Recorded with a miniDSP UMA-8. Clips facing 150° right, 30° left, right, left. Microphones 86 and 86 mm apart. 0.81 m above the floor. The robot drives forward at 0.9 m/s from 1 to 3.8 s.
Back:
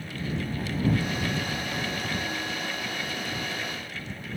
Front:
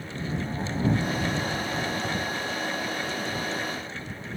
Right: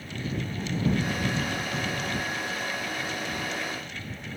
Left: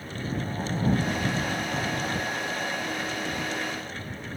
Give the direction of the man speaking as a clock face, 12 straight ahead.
I don't hear a man speaking.